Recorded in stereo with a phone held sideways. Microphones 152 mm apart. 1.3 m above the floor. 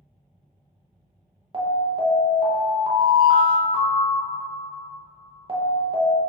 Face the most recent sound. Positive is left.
turn(degrees=-35)  # may be behind; listen again after turning